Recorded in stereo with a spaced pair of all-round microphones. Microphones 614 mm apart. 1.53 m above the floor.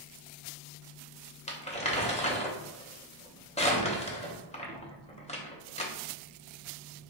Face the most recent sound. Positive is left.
turn(degrees=10)  # may be behind; listen again after turning